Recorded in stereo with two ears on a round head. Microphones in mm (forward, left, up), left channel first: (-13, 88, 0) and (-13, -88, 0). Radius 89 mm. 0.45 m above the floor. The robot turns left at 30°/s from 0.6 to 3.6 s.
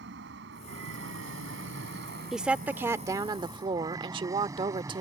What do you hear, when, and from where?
0.0 s an aircraft: 60° right (ahead or behind); by 5.0 s 15° right (ahead or behind)
2.3 s a woman speaking: 5° right; by 5.0 s 45° right